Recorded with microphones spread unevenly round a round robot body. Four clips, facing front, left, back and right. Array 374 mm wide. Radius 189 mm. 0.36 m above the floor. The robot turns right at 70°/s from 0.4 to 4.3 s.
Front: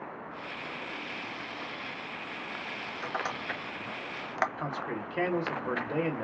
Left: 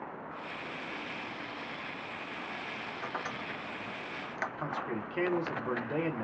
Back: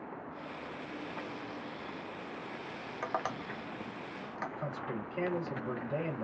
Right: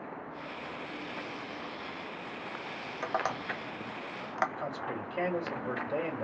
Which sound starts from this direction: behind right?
Tapping, at 3.0 s.